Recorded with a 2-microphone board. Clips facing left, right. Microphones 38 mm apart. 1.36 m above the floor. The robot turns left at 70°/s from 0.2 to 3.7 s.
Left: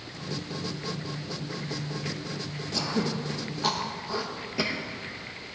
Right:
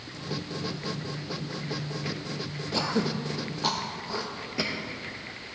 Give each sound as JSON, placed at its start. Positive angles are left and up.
{"t": 2.7, "sound": "throat clearing", "side_deg": -30, "distance_m": 0.6}